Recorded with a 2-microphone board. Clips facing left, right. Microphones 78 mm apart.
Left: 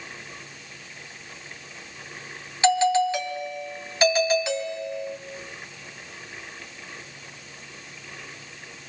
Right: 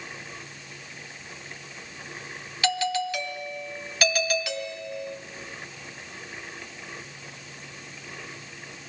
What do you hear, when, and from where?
2.6 s a doorbell: 25° left (ahead or behind), 2.5 m